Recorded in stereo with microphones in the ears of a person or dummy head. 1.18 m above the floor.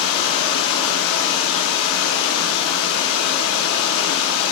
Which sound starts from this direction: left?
Running water, at 0.0 s.